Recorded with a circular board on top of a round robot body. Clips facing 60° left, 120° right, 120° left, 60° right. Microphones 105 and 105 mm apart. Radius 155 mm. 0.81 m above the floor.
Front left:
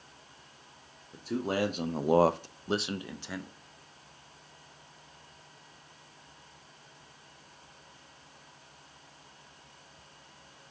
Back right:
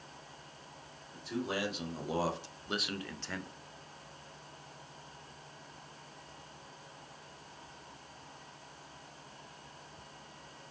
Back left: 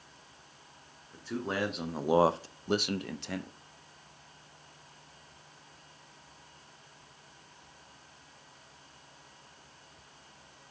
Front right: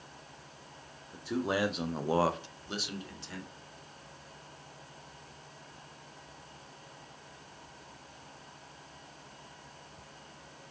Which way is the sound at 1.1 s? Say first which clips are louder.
Front left 5 dB, front right 3 dB; 15° left.